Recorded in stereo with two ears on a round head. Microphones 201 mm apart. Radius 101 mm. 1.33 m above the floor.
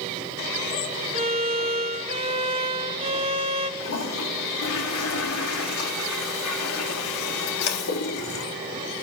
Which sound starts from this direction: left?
A toilet flushing, at 3.8 s.